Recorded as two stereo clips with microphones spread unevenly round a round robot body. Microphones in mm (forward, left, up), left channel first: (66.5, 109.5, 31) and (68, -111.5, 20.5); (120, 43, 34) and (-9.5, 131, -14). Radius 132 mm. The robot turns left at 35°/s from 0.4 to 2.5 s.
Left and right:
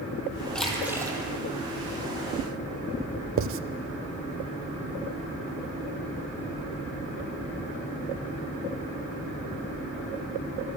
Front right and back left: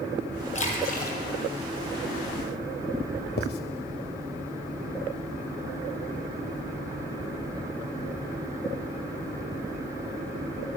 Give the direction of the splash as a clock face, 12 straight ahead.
12 o'clock.